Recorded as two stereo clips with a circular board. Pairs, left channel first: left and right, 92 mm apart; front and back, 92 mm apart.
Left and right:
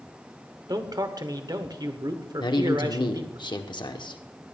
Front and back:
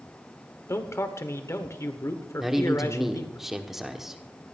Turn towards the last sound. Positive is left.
turn(degrees=95)